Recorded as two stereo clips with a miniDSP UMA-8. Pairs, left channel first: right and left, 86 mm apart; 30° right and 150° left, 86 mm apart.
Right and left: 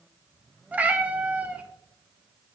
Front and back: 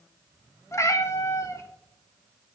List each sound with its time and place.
0.7 s a cat meowing: 20° left, 0.7 m